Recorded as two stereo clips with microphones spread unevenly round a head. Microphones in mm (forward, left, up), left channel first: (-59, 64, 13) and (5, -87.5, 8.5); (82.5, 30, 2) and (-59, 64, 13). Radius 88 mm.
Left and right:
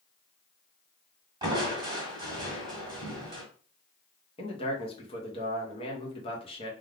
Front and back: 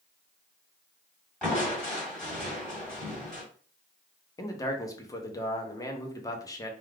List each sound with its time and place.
1.4 s crushing: 100° right, 1.2 m
4.4 s a man speaking: 50° left, 0.8 m